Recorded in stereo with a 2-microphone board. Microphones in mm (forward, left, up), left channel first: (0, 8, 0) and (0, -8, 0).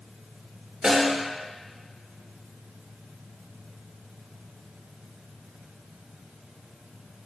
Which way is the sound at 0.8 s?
55° right (ahead or behind).